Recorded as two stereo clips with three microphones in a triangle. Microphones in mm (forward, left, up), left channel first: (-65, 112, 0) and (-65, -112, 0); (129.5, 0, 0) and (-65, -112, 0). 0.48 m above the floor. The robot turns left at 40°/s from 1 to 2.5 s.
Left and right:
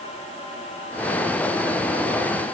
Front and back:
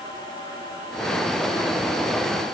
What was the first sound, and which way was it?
Only background noise.